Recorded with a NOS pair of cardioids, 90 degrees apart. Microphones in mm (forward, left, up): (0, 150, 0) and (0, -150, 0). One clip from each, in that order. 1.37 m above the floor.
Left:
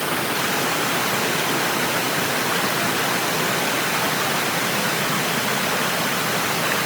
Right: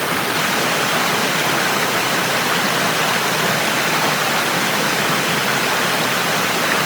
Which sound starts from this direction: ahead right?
Running water, at 0.0 s.